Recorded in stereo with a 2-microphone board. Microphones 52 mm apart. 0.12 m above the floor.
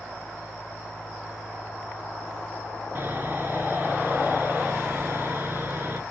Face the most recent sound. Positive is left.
turn(degrees=-40)  # may be behind; listen again after turning